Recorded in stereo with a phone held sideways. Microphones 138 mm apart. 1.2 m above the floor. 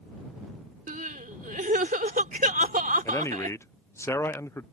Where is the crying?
85° right.